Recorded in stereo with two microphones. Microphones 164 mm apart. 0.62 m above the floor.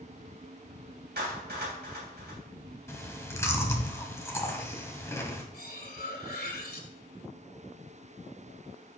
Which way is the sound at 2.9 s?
15° left (ahead or behind).